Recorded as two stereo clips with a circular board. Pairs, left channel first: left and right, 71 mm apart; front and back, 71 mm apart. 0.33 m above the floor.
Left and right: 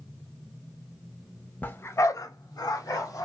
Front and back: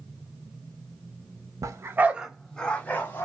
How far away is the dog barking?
About 0.6 m.